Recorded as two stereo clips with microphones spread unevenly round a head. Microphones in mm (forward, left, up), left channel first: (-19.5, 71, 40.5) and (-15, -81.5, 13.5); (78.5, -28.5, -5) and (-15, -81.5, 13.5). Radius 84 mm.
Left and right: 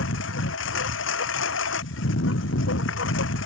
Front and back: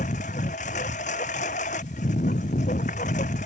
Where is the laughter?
I don't hear laughter.